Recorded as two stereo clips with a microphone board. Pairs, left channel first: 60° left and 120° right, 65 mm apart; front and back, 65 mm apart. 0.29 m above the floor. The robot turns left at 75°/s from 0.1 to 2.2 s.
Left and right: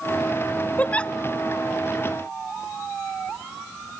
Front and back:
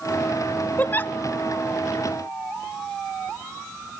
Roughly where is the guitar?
No guitar in this recording.